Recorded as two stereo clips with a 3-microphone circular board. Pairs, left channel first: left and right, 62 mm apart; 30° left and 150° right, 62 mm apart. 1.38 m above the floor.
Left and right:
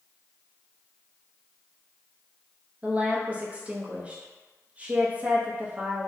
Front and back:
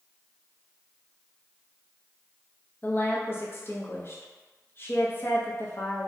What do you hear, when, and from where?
2.8 s a woman speaking: 25° right, 0.5 m